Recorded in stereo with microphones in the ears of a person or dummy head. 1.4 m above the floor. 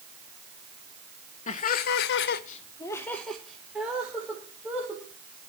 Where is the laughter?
45° left (ahead or behind), 1.0 m; by 5.0 s 10° right (ahead or behind), 2.5 m.